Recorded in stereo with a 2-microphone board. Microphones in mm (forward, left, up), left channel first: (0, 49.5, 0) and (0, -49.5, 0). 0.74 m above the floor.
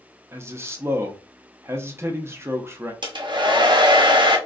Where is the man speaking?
25° right (ahead or behind), 0.5 m.